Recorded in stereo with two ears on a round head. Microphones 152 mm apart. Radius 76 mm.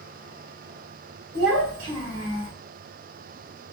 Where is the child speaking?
65° right (ahead or behind), 1.2 m; by 2.5 s 25° right (ahead or behind), 0.9 m.